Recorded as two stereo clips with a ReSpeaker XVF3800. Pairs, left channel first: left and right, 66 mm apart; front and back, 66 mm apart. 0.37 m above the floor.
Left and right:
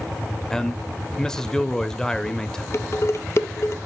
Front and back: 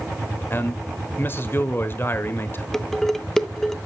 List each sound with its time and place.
0.5 s a man speaking: 15° left, 1.2 m
2.7 s dishes clattering: 80° left, 0.9 m